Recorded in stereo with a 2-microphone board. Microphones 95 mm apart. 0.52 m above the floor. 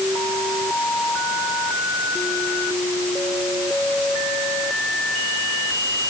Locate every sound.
Only background noise.